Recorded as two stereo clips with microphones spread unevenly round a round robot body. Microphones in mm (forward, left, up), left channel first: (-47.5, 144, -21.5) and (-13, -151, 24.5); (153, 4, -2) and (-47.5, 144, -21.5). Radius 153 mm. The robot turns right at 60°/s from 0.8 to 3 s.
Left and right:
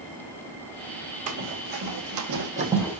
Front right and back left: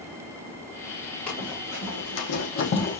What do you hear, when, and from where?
1.3 s running footsteps: 120° right, 3 m; by 3.0 s 25° left, 1.0 m